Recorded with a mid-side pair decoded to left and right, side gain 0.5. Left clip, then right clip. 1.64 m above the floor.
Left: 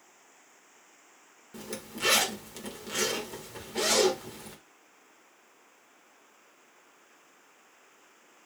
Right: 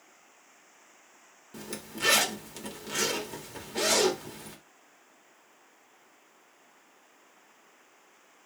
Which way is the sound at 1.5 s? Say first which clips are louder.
Even; 5° right.